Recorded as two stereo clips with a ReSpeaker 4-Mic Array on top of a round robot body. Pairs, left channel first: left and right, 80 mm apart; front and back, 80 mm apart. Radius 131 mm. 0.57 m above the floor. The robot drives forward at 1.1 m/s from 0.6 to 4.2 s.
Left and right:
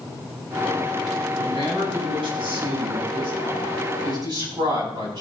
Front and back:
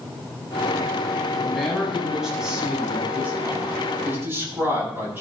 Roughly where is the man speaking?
Right.